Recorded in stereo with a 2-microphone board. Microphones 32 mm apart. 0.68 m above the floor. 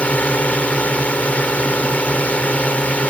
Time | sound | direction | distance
0.0 | a drone | 50° left (ahead or behind) | ?